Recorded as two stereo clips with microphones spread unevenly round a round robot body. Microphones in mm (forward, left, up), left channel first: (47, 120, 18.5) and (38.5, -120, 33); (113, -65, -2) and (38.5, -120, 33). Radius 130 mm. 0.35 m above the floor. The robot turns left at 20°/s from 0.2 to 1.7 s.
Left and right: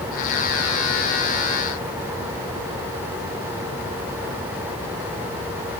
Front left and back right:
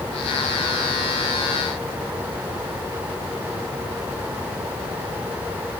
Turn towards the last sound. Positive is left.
No sound to turn to.